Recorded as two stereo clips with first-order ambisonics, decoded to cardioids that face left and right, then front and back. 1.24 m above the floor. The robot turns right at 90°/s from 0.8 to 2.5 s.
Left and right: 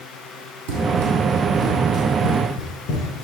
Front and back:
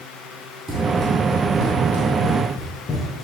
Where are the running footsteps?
100° right, 2.5 m; by 3.2 s 75° left, 4 m.